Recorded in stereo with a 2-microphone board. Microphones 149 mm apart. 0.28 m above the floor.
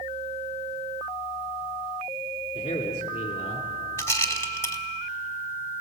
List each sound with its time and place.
2.5 s a man speaking: 40° left (ahead or behind), 3 m; by 3.7 s 45° left (ahead or behind), 2.5 m
4.0 s a rattle: 20° left (ahead or behind), 1.1 m